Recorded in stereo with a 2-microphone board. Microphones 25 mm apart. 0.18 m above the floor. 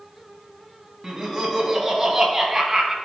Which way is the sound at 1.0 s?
5° right (ahead or behind).